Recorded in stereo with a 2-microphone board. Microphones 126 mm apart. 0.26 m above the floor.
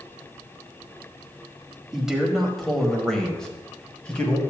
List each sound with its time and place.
1.9 s a man speaking: 5° right (ahead or behind), 1.1 m; by 4.4 s 10° left (ahead or behind), 1.4 m